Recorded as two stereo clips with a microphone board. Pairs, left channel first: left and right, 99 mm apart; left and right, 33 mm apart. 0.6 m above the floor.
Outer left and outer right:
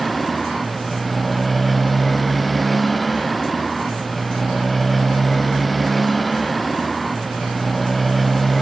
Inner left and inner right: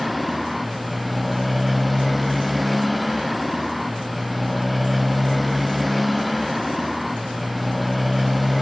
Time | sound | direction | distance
0.0 | a motorcycle | centre (ahead or behind) | ?